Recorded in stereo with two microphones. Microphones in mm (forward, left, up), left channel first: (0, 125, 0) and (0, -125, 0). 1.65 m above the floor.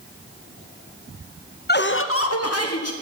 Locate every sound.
1.7 s laughter: 40° left (ahead or behind), 0.6 m; by 2.9 s 80° left, 1.0 m